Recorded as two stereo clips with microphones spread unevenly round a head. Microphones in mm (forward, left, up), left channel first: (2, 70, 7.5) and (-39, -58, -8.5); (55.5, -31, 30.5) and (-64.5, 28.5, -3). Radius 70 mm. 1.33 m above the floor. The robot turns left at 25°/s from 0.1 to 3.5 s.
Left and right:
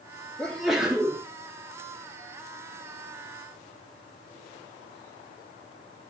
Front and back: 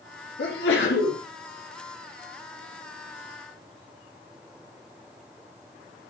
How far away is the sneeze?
About 3 m.